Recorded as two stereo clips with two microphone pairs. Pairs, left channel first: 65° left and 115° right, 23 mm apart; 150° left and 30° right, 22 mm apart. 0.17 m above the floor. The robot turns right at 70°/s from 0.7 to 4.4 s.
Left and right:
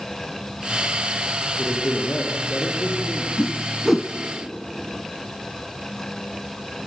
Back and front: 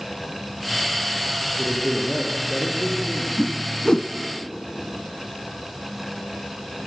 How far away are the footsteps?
I don't hear footsteps.